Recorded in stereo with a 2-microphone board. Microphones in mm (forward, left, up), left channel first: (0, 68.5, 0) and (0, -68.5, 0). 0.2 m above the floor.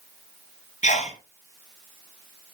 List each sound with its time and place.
0.8 s a sneeze: 60° left (ahead or behind), 2.5 m